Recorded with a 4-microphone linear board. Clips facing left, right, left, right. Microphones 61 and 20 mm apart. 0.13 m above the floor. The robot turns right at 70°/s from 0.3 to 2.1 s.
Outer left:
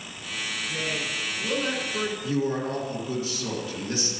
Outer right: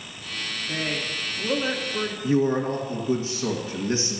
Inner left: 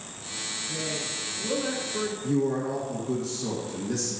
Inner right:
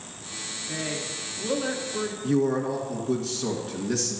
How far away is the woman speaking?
About 1.5 m.